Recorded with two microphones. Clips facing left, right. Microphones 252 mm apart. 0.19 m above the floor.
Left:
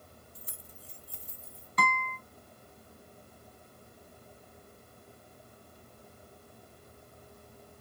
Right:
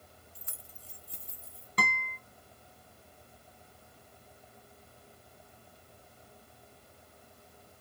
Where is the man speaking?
No man speaking in this recording.